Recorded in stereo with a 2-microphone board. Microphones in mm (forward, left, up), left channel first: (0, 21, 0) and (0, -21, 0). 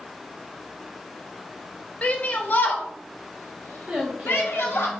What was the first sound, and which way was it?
A shout, 35° left (ahead or behind).